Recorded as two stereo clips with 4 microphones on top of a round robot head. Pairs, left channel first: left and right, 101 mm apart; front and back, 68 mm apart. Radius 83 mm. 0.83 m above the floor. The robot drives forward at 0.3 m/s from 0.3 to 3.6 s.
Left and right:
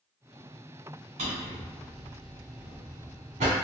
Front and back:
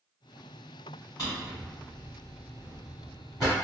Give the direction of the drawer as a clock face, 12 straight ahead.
2 o'clock.